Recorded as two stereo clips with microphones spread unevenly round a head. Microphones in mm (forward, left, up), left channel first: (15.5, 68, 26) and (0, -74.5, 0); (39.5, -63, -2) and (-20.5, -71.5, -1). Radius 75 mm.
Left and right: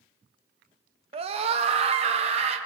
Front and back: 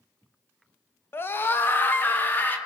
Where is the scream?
45° right, 1.2 m; by 2.6 s 50° right, 2.5 m.